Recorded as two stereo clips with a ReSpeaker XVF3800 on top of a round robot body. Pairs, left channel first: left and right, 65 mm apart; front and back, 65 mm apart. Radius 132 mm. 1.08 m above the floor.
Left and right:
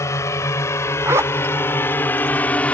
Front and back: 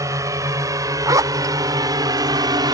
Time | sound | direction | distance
0.0 | a drone | 135° left | ?
1.1 | a zipper | 150° right | ?